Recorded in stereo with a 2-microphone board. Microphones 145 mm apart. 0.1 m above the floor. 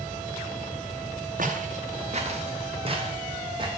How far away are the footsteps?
About 1.6 m.